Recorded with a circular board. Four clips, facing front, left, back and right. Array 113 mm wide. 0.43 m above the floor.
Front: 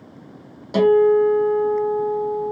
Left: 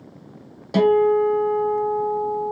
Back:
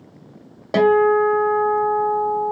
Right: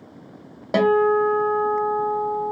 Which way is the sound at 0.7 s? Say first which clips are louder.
Left 1 dB, even; 135° right.